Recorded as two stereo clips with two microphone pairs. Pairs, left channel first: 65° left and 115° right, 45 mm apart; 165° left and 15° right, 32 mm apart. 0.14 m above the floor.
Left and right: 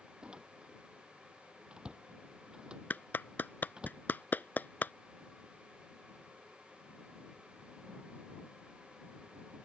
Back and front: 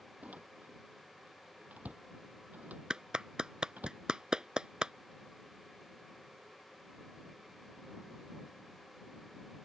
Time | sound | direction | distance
0.2 | a door slam | 50° right | ?
2.9 | a clap | 40° left | ?